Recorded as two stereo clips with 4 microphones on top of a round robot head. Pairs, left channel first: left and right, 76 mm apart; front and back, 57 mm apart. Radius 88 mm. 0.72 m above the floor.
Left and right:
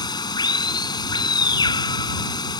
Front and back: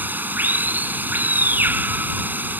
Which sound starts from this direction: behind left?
Running water, at 0.0 s.